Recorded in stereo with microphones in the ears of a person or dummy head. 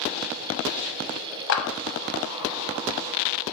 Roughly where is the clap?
Left.